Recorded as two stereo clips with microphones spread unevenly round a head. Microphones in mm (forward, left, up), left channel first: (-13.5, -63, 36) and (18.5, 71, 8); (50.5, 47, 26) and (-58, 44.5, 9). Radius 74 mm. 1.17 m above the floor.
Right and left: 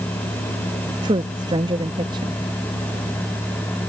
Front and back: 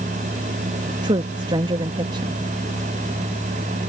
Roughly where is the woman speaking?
Behind left.